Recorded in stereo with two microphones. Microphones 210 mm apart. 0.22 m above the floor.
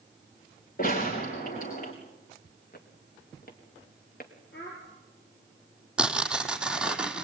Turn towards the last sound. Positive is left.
turn(degrees=-5)  # may be behind; listen again after turning